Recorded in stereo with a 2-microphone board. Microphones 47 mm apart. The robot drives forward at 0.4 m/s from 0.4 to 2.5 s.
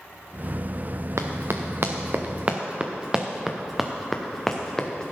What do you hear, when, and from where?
1.2 s running footsteps: 70° right (ahead or behind), 1.5 m; by 5.1 s 20° left (ahead or behind), 1.9 m